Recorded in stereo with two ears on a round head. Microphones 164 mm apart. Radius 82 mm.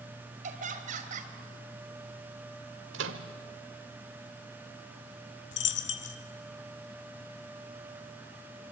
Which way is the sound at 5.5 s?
65° left (ahead or behind).